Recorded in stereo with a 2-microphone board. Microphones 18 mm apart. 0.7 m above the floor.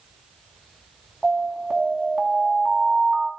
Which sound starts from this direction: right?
An alarm, at 1.2 s.